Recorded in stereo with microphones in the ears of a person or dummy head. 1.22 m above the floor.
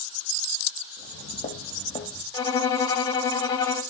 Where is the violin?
25° left (ahead or behind), 1.4 m.